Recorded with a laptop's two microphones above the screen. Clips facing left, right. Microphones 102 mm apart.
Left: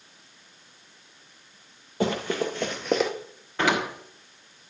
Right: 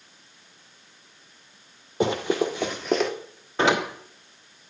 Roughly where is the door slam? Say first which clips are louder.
Right 3 dB; right.